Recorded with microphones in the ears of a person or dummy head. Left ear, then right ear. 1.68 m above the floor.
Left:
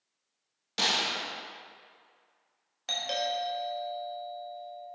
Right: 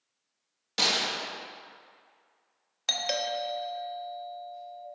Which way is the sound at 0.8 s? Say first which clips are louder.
Right 1 dB; 10° right (ahead or behind).